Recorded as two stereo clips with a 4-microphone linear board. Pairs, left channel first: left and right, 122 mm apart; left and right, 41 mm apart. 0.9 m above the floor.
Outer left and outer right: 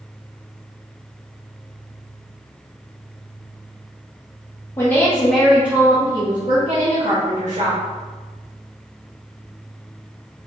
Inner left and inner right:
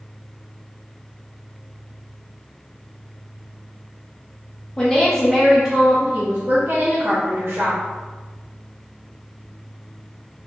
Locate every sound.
4.8 s a woman speaking: 20° left (ahead or behind), 0.9 m; by 7.8 s 65° right (ahead or behind), 1.3 m